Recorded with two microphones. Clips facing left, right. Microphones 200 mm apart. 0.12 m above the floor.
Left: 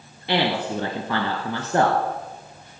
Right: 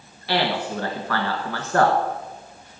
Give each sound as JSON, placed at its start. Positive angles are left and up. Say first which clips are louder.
{"t": 0.3, "sound": "a man speaking", "louder": "left 1 dB", "side_deg": 20, "distance_m": 1.4}